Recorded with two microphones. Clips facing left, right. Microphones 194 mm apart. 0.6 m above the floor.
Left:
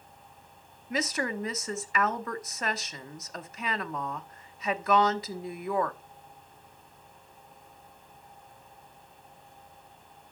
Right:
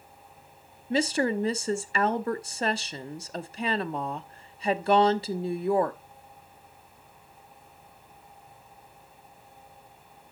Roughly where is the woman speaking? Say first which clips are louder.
Right 6 dB; right.